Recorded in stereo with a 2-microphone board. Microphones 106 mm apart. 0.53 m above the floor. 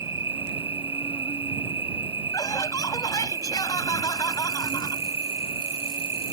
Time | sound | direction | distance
0.0 | an insect | 55° left (ahead or behind) | ?
2.3 | laughter | 35° left (ahead or behind) | ?